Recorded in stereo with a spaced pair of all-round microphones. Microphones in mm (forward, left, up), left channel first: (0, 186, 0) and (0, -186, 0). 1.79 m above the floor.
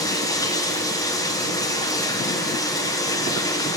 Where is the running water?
10° left (ahead or behind), 0.8 m.